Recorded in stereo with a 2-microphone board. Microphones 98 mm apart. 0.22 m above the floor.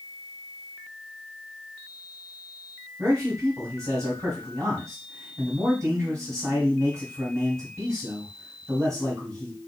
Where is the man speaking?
35° right (ahead or behind), 1.9 m.